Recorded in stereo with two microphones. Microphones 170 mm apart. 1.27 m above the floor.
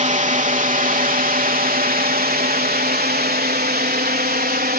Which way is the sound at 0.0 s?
45° right (ahead or behind).